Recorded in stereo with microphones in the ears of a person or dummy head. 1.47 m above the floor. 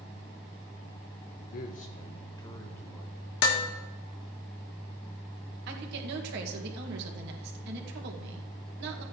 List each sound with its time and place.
1.4 s a man speaking: 60° left (ahead or behind), 0.9 m; by 3.3 s 5° left (ahead or behind), 2 m
3.4 s dishes clattering: 60° left (ahead or behind), 1.3 m
5.7 s a woman speaking: 60° right (ahead or behind), 2.0 m